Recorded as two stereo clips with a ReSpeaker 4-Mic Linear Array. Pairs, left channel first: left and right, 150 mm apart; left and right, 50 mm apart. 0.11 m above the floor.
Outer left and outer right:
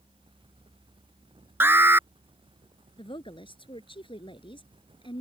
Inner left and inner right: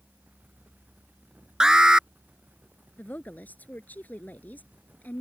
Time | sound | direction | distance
1.6 | an alarm | 15° right (ahead or behind) | ?
3.0 | a woman speaking | 35° left (ahead or behind) | ?